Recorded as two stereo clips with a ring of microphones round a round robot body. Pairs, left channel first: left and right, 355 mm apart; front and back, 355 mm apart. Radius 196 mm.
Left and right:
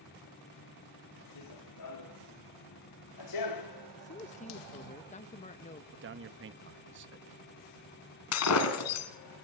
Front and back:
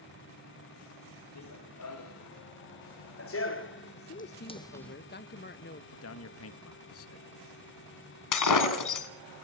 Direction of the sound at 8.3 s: 35° left.